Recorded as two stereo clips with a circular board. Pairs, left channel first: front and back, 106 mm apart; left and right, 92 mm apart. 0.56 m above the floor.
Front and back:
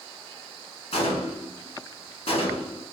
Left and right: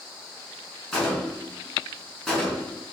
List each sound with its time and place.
0.9 s a gunshot: 5° left, 1.6 m